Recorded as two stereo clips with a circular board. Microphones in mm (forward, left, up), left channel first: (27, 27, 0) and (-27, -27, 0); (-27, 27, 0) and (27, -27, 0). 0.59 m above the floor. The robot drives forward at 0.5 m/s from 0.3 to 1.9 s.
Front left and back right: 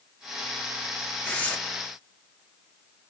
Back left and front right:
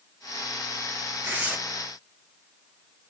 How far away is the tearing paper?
About 1.1 m.